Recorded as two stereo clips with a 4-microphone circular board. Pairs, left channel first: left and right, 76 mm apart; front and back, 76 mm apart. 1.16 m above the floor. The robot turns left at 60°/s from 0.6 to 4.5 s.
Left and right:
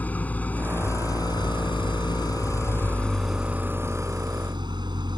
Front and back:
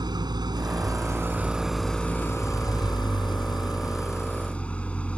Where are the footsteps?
I don't hear footsteps.